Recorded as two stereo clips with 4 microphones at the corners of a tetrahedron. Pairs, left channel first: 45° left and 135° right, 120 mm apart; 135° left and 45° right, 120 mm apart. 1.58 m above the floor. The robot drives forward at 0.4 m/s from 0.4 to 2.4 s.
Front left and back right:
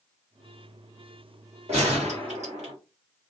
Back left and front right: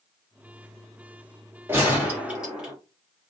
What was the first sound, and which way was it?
A gunshot, 115° right.